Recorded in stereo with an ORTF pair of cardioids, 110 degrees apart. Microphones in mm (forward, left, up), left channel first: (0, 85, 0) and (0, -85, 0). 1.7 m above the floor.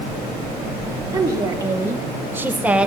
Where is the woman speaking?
20° right, 2.5 m; by 2.9 s 5° right, 1.4 m.